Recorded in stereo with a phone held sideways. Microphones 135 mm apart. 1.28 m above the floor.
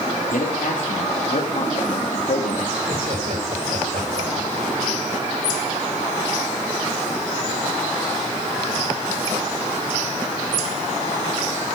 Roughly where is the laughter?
Right.